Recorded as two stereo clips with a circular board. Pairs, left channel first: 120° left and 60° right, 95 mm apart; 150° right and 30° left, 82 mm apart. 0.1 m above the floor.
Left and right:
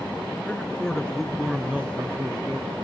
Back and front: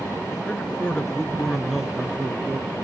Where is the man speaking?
165° left, 1.2 m; by 2.8 s 35° right, 1.4 m.